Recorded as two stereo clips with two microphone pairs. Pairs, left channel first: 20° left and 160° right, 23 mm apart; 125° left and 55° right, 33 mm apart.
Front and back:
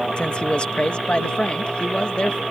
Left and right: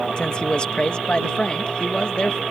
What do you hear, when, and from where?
0.2 s a man speaking: 65° left